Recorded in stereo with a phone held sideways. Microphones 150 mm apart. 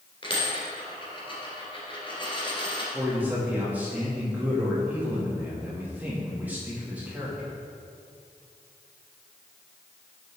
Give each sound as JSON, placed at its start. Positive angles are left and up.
{"t": 0.2, "sound": "a dropped coin", "side_deg": 35, "distance_m": 2.5}
{"t": 2.9, "sound": "a man speaking", "side_deg": -10, "distance_m": 2.5}